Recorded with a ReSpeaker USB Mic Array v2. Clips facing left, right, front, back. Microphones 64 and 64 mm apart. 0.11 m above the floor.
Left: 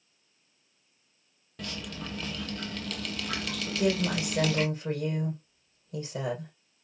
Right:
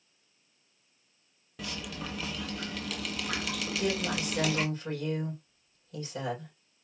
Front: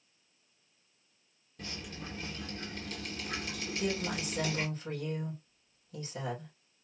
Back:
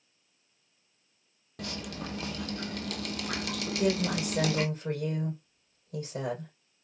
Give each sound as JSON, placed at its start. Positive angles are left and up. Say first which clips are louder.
{"t": 1.6, "sound": "dripping", "louder": "even, back 6 dB", "azimuth_deg": -175, "distance_m": 0.6}
{"t": 3.7, "sound": "a woman speaking", "louder": "left 5 dB, back 6 dB", "azimuth_deg": 145, "distance_m": 3.5}